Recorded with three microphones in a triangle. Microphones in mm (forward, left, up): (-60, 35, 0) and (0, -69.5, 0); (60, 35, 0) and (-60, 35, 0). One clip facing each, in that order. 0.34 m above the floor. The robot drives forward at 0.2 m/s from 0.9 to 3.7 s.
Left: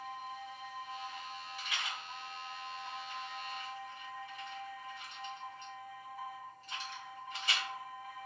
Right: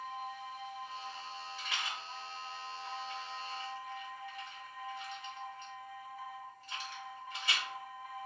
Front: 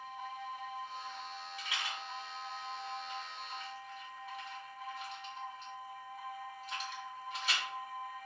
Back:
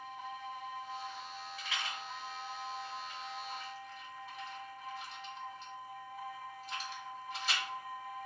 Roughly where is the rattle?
Ahead left.